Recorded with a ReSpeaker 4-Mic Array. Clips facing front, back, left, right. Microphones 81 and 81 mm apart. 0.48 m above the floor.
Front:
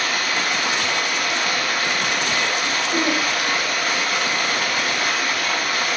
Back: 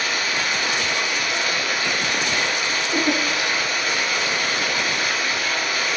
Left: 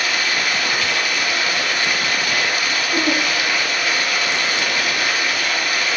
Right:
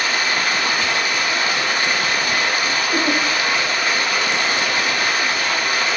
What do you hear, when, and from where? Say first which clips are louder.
0.0 s running water: front 1 dB, right 1 dB; 35° right, 0.9 m
2.9 s a giggle: even, left 1 dB; 50° right, 1.8 m